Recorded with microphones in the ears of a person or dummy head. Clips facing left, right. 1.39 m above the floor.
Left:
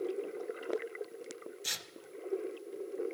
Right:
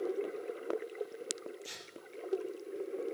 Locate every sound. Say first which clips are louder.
1.6 s tearing paper: even; 70° left (ahead or behind), 0.7 m